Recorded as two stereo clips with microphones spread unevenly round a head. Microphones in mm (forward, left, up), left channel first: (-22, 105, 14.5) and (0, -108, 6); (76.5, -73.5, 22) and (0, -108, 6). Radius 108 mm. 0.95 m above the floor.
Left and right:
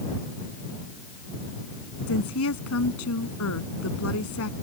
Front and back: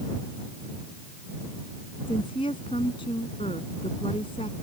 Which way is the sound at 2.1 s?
75° left.